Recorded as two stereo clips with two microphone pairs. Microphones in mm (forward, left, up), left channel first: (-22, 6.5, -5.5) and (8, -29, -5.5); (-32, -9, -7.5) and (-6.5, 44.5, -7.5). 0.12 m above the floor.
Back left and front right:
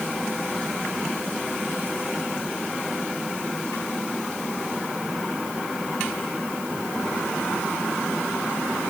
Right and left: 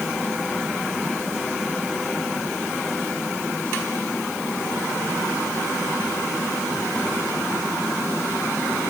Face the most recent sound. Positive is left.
No sound to turn to.